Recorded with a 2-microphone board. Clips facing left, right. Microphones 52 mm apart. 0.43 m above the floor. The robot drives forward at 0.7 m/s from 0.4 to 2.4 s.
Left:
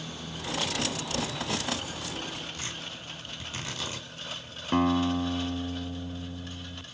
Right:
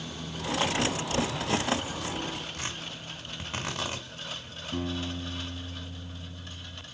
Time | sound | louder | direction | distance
2.5 | tearing paper | right 1 dB | 70° right (ahead or behind) | 5 m
4.7 | a guitar | left 9 dB | 75° left (ahead or behind) | 0.7 m